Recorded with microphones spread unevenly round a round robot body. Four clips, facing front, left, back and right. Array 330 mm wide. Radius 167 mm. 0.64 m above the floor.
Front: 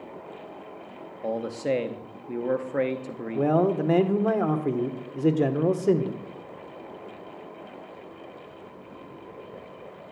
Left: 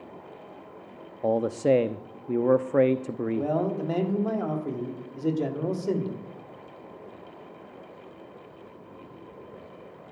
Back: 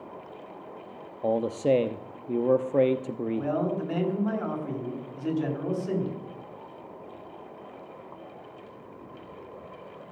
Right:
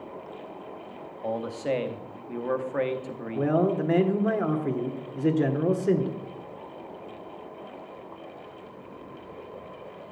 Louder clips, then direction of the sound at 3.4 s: Right 5 dB, front 8 dB; 25° right.